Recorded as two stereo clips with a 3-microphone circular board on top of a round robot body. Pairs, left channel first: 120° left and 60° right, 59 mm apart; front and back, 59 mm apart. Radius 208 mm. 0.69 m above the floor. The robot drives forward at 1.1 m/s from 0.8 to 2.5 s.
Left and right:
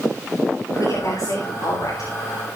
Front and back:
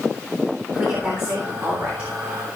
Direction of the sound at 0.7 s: 120° left.